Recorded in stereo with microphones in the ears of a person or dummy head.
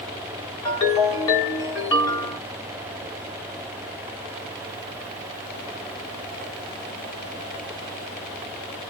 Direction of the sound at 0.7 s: 25° left (ahead or behind).